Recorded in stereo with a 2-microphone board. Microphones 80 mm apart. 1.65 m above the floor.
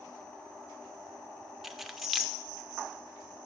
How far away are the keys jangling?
About 0.5 m.